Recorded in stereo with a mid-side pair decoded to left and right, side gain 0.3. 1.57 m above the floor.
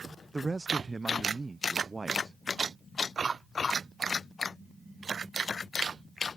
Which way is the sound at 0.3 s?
35° right.